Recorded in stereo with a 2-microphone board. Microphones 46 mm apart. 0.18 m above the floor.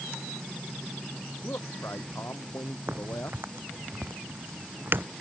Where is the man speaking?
65° left (ahead or behind).